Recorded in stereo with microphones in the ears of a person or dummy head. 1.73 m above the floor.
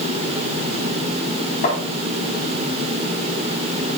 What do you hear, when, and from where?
1.6 s tapping: 55° left (ahead or behind), 3.5 m